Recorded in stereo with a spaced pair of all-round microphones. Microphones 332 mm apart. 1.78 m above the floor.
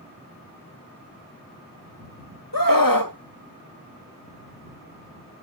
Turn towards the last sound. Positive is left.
turn(degrees=80)